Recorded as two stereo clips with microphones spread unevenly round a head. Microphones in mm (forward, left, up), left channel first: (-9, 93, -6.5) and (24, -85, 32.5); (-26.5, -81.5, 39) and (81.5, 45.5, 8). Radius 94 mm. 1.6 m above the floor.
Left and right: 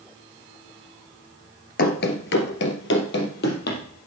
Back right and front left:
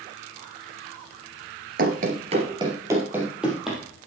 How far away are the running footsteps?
About 1.9 m.